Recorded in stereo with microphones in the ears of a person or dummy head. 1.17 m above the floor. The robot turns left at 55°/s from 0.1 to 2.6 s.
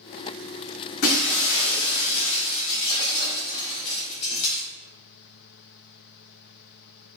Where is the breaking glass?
120° left, 3.5 m; by 4.6 s 30° left, 3.5 m.